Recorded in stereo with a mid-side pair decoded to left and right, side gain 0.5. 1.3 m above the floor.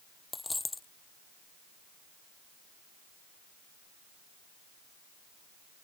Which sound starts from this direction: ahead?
A dropped coin, at 0.3 s.